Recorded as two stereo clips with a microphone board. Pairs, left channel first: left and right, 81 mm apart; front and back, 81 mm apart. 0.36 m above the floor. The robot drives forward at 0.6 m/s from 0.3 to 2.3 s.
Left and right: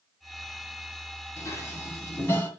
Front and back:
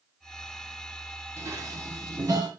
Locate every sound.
1.4 s dishes clattering: 130° left, 1.6 m; by 2.5 s 145° left, 2.0 m